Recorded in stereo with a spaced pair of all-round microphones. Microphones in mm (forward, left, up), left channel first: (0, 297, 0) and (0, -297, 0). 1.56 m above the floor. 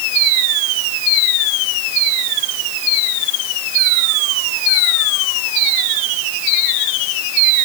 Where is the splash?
No splash in this recording.